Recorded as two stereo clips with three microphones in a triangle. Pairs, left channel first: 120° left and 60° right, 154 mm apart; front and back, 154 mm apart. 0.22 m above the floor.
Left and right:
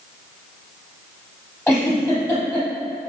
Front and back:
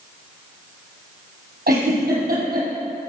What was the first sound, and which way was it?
A giggle, 160° right.